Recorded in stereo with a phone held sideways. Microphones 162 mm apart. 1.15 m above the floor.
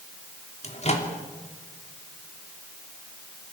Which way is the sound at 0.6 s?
45° left (ahead or behind).